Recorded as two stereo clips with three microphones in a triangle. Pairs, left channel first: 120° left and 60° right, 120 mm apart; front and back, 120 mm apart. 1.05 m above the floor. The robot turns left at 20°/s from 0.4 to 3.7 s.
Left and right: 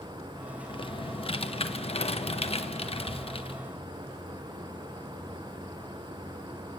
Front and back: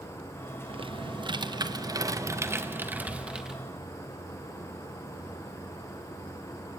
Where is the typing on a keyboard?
155° left, 1.1 m; by 3.6 s 95° left, 1.1 m.